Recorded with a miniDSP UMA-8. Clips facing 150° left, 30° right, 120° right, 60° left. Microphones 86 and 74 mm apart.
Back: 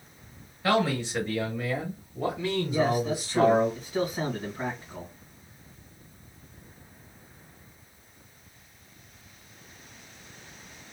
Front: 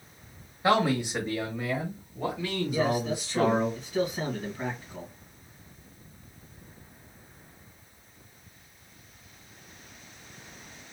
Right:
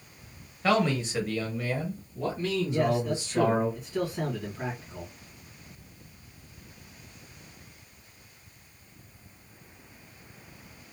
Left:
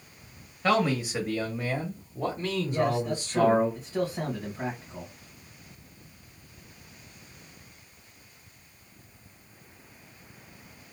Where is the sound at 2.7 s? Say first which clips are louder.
Back 1 dB, left 1 dB; 95° left, 2.0 m.